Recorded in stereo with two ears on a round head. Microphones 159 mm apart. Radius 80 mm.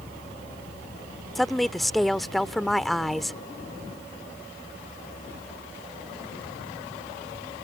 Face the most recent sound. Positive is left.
turn(degrees=0)  # may be behind; listen again after turning